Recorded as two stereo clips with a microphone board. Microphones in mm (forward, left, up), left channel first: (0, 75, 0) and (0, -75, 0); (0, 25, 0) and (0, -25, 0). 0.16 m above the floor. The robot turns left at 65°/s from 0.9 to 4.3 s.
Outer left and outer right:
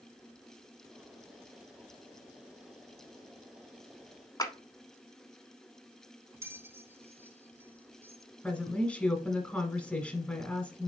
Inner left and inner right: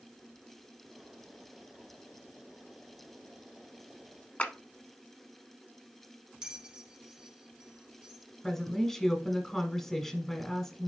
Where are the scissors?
No scissors in this recording.